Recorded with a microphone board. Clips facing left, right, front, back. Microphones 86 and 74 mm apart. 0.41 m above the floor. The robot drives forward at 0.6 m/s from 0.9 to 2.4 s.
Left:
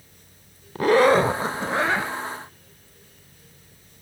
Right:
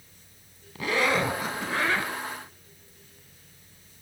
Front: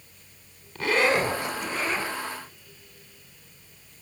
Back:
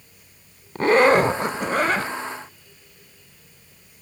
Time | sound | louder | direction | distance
0.8 | a zipper | left 9 dB, back 8 dB | 135° left | 0.6 m